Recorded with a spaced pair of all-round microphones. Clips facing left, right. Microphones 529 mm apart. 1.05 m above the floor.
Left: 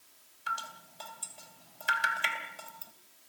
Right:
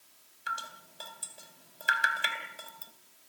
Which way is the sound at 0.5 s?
20° left (ahead or behind).